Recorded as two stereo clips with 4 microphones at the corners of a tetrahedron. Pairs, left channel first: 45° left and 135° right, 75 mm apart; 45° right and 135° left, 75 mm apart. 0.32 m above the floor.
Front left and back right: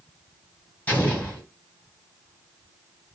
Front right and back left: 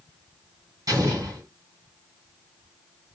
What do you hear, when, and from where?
0.9 s an explosion: 105° left, 1.7 m